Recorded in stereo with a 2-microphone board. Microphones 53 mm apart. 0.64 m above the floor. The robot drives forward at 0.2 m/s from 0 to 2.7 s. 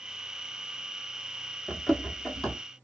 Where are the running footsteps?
15° left (ahead or behind), 0.8 m; by 2.6 s 10° left (ahead or behind), 1.0 m.